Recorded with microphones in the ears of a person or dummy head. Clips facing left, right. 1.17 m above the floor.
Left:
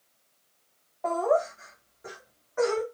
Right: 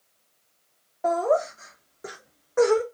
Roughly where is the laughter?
Right.